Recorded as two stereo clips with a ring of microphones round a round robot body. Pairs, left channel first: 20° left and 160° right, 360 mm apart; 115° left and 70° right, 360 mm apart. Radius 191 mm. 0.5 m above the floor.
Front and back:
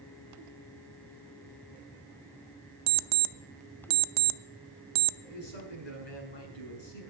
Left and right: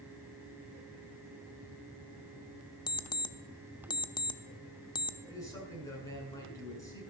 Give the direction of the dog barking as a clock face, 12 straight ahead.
No dog barking in this recording.